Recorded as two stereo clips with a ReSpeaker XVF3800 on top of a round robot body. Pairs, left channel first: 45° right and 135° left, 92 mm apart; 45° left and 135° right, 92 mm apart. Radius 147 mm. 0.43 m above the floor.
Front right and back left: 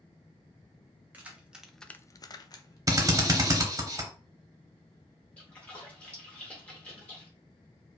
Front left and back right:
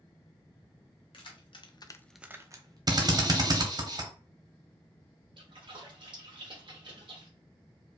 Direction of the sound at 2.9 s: 175° right.